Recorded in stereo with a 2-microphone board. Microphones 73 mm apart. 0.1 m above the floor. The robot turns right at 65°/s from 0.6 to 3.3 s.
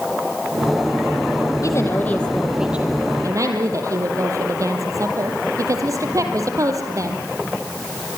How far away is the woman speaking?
About 3.5 m.